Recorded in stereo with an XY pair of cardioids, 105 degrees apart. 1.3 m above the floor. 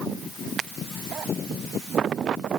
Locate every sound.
Only background noise.